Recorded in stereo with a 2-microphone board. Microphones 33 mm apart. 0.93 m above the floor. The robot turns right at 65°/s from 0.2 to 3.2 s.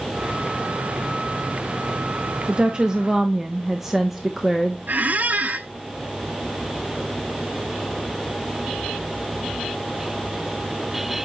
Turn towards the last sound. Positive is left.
turn(degrees=-50)  # may be behind; listen again after turning